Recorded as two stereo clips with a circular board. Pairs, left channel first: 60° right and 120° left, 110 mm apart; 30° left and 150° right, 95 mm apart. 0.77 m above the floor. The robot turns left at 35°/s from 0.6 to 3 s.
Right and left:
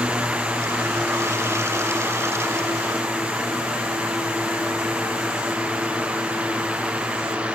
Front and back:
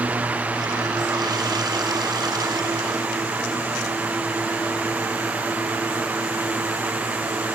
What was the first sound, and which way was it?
Only background noise.